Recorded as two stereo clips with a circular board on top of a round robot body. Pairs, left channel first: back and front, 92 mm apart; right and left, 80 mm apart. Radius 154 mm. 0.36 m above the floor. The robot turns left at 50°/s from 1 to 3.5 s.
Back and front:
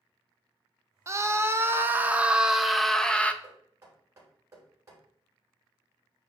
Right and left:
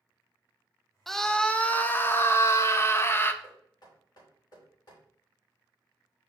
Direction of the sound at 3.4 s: 50° right.